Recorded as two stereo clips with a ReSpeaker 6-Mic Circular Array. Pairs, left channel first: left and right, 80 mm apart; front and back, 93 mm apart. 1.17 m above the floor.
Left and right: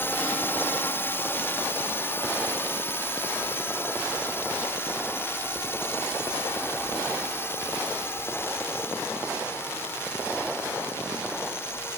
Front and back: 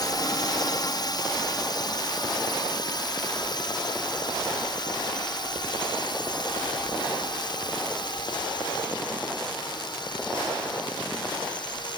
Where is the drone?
30° left.